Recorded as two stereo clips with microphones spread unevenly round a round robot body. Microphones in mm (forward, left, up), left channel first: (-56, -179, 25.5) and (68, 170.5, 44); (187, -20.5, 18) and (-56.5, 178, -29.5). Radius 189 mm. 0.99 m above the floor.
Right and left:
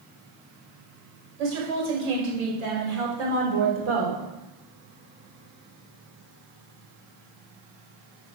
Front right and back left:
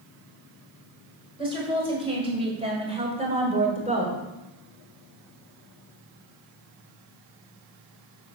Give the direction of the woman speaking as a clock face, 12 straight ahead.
10 o'clock.